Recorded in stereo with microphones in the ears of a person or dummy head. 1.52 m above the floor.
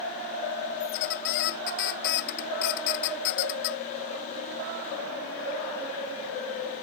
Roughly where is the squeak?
Left.